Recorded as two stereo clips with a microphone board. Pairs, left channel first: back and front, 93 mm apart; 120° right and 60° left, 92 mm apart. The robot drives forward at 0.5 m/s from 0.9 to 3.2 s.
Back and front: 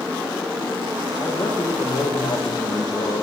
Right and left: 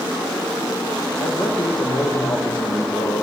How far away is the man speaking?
About 9.5 m.